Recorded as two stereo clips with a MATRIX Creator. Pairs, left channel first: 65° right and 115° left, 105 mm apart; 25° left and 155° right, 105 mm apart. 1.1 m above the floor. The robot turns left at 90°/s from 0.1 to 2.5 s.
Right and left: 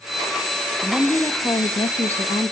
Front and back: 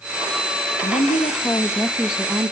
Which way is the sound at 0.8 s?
40° left.